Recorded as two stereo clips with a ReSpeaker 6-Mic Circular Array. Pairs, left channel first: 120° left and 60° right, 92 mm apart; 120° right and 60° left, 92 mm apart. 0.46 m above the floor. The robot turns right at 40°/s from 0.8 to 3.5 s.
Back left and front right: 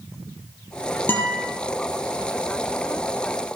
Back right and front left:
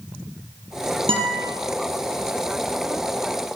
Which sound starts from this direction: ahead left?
A guitar, at 1.1 s.